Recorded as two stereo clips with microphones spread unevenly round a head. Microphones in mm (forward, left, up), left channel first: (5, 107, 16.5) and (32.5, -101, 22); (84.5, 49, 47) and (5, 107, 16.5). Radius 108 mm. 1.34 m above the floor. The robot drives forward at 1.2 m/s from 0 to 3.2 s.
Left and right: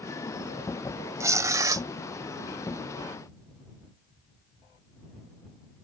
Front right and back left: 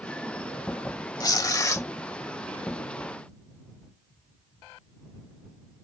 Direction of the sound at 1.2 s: 10° right.